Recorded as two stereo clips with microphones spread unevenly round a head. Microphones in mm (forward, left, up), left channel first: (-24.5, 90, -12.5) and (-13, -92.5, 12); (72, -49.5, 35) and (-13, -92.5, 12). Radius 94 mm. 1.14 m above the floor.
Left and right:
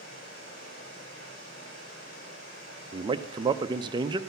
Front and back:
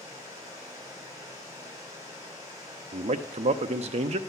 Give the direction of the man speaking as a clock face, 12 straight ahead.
5 o'clock.